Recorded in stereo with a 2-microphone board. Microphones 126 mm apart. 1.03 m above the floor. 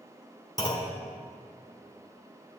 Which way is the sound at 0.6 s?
30° left (ahead or behind).